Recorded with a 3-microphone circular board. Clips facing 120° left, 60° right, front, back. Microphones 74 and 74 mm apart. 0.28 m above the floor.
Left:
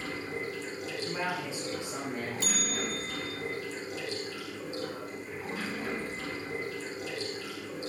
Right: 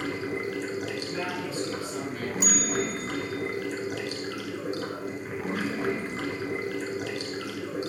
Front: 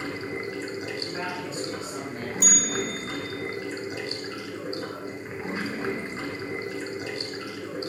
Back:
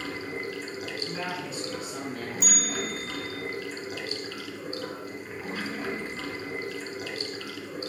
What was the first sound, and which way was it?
Running water, 60° right.